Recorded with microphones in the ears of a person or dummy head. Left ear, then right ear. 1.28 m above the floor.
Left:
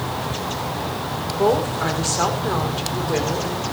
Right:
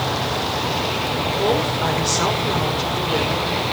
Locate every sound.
1.3 s a woman speaking: 40° left (ahead or behind), 4.5 m; by 3.6 s 25° left (ahead or behind), 4 m